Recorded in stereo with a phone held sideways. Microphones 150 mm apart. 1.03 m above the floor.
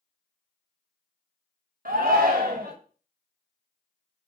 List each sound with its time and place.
1.9 s a shout: 70° right (ahead or behind), 1.3 m